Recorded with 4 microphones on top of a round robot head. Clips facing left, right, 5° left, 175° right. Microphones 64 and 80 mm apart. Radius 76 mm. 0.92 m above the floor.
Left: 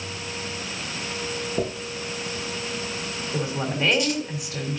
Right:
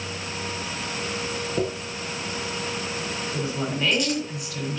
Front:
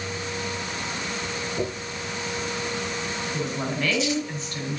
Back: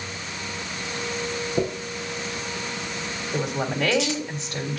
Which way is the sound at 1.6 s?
140° right.